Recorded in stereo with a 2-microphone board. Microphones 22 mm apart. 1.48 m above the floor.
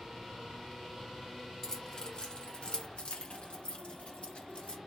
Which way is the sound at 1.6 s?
20° left (ahead or behind).